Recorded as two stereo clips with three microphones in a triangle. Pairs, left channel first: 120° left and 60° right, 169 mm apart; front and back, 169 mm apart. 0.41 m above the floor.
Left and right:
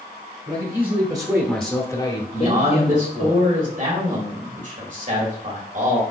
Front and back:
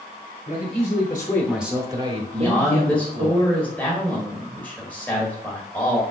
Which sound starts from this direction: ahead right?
A man speaking, at 0.5 s.